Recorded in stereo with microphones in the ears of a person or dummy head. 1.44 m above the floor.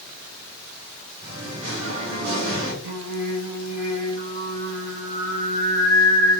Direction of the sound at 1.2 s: 85° right.